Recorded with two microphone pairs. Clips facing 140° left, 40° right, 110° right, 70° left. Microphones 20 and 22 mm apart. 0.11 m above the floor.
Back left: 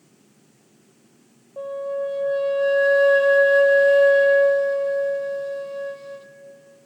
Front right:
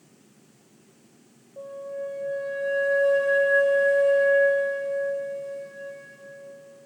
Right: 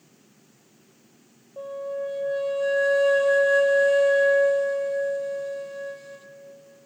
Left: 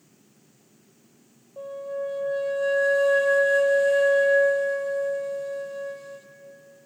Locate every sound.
1.6 s a flute: 170° left, 1.0 m